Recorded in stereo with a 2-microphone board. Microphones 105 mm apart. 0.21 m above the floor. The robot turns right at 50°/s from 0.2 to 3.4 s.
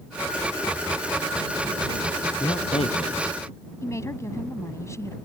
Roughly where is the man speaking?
Left.